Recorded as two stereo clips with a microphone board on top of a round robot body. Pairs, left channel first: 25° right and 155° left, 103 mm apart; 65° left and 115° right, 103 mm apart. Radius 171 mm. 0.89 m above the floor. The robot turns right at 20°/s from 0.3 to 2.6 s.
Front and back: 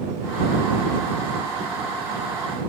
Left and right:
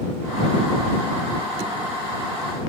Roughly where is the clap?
I don't hear a clap.